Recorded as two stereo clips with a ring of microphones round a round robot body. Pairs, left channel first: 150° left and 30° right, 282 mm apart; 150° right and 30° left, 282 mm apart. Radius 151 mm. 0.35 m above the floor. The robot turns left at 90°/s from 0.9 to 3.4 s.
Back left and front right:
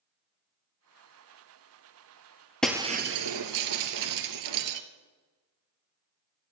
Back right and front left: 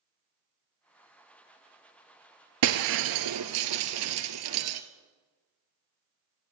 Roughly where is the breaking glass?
Ahead left.